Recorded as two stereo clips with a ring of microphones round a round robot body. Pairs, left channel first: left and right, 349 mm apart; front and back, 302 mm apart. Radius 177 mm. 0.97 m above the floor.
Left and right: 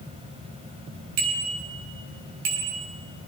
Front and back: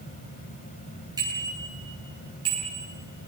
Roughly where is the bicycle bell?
Right.